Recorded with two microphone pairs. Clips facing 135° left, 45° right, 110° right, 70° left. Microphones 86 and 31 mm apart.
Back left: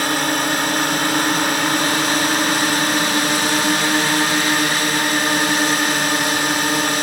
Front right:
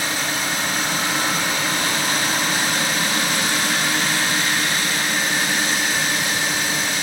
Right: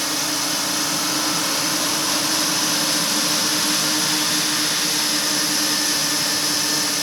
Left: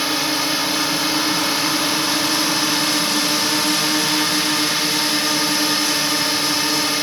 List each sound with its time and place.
0.0 s a drone: 130° left